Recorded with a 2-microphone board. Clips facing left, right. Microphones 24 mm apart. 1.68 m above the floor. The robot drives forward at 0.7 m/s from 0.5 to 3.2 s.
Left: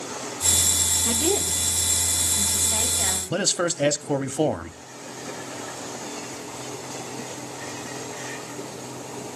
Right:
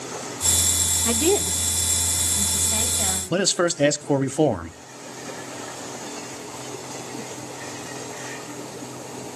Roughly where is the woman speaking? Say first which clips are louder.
Right 6 dB; right.